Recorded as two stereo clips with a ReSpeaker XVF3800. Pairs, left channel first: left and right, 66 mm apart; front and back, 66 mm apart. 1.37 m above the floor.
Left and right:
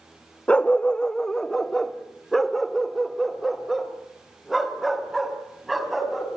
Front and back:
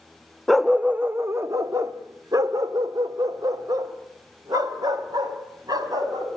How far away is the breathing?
No breathing in this recording.